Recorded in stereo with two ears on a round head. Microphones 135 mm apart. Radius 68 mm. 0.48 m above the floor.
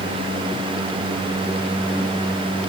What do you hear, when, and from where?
Only background noise.